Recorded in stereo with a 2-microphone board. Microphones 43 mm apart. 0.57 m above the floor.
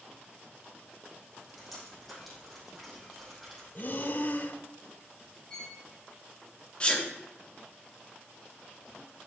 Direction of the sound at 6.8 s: 25° left (ahead or behind).